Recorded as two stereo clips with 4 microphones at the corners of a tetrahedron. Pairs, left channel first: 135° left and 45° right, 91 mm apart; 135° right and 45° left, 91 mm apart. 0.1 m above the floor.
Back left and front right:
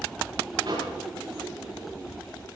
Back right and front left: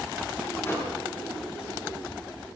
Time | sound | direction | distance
0.6 | a microwave | 75° right | 6.5 m